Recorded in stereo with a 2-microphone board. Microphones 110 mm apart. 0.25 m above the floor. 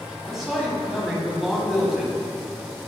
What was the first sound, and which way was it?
A man speaking, 5° right (ahead or behind).